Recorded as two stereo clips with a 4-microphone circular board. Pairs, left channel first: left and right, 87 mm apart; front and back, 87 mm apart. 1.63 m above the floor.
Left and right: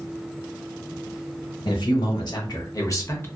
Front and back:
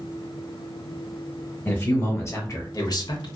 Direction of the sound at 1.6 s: 65° left.